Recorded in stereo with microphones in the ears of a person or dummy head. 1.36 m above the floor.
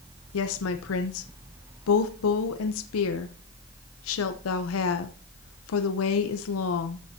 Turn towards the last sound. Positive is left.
turn(degrees=85)